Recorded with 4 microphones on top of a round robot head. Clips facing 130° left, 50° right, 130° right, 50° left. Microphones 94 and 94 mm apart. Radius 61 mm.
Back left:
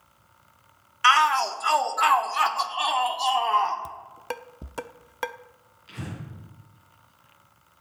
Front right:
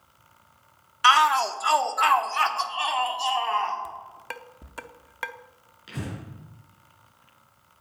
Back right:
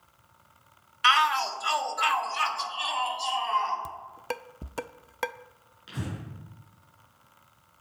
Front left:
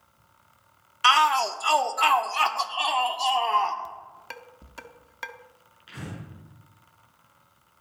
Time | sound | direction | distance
1.0 | a shout | 20° left | 1.3 m
3.9 | dishes clattering | 170° right | 0.6 m
5.9 | breathing | 65° right | 8 m